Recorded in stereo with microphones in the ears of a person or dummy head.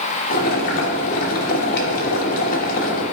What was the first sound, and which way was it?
Boiling, 45° left (ahead or behind).